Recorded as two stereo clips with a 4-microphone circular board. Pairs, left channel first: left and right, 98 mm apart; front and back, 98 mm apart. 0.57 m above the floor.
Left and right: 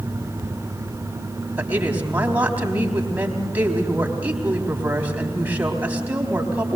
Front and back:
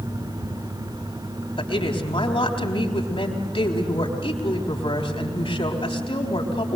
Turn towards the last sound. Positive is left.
turn(degrees=-15)